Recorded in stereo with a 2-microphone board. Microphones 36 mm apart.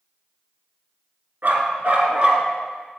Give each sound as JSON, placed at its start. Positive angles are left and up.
{"t": 1.4, "sound": "a dog barking", "side_deg": -65, "distance_m": 1.4}